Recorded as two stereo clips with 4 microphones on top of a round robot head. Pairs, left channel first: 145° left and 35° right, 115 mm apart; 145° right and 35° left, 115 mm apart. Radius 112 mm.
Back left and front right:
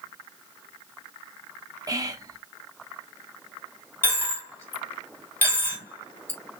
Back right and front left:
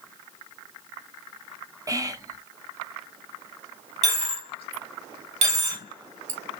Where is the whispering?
Straight ahead, 1.6 m.